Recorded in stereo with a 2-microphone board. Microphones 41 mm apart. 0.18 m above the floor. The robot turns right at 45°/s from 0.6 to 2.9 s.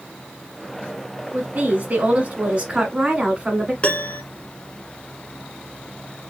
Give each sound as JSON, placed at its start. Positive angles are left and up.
{"t": 1.3, "sound": "a woman speaking", "azimuth_deg": -110, "distance_m": 1.6}
{"t": 3.8, "sound": "a piano", "side_deg": 30, "distance_m": 1.3}